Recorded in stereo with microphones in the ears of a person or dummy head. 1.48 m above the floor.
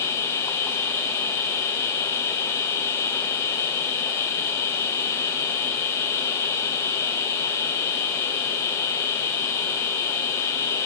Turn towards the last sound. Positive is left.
turn(degrees=20)  # may be behind; listen again after turning